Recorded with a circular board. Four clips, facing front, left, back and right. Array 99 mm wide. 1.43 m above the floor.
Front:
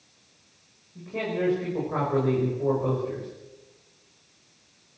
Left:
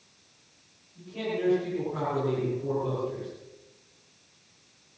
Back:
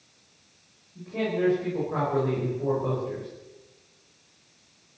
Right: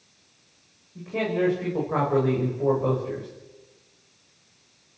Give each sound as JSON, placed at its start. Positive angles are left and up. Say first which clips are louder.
{"t": 0.9, "sound": "a man speaking", "louder": "right 6 dB, back 1 dB", "azimuth_deg": -80, "distance_m": 7.0}